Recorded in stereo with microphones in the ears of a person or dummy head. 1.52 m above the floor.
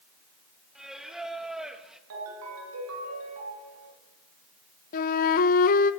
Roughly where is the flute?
Left.